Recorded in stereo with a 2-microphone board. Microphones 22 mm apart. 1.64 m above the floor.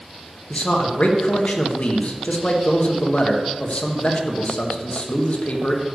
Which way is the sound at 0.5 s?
60° left (ahead or behind).